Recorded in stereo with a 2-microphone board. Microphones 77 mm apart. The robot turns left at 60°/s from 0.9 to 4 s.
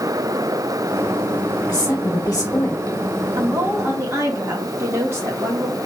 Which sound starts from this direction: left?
A woman speaking, at 1.7 s.